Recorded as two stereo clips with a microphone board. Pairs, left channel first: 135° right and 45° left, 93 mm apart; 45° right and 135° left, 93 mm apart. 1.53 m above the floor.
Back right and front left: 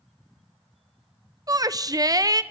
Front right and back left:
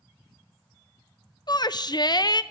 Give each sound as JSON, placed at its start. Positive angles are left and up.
{"t": 1.5, "sound": "a shout", "azimuth_deg": -5, "distance_m": 0.7}